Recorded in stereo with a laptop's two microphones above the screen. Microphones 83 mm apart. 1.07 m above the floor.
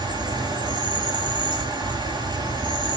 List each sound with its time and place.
0.0 s an insect: 55° right (ahead or behind), 2.5 m